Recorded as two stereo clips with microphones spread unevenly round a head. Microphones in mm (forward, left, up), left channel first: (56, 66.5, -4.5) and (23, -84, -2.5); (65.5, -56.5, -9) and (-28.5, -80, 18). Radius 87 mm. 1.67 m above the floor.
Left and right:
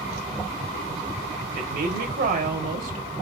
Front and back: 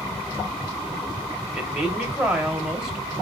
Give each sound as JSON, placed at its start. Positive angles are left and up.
{"t": 1.5, "sound": "a woman speaking", "azimuth_deg": -90, "distance_m": 1.1}